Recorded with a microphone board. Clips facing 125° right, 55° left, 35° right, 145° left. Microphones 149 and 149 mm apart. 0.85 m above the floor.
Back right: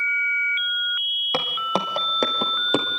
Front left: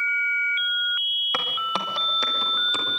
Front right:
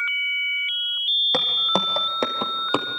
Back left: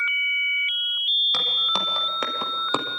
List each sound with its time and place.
1.3 s footsteps: 70° right, 2.5 m; by 2.9 s 115° right, 1.8 m